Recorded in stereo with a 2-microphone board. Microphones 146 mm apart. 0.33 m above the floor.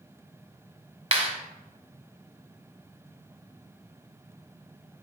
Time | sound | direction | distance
1.1 | a clap | 45° right (ahead or behind) | 2 m